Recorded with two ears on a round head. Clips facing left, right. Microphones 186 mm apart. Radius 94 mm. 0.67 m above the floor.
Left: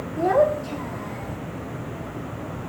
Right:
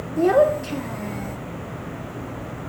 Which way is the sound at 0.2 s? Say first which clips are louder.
Right 3 dB; 35° right (ahead or behind).